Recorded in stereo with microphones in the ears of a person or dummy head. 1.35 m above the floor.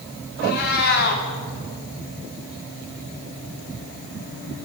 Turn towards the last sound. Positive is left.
turn(degrees=50)  # may be behind; listen again after turning